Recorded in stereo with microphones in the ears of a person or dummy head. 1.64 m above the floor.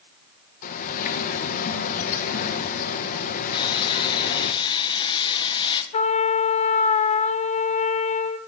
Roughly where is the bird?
Left.